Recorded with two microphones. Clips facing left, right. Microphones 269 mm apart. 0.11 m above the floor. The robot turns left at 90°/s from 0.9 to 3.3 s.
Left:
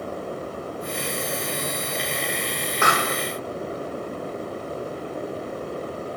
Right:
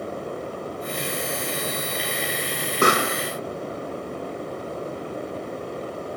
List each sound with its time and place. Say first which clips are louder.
2.8 s a pop: right 5 dB; 135° right, 1.2 m; by 3.1 s 165° right, 1.2 m